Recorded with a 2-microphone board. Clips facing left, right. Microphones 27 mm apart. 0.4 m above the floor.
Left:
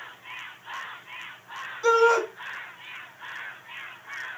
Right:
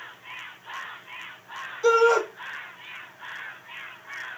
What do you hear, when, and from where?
1.8 s a shout: 5° right (ahead or behind), 3 m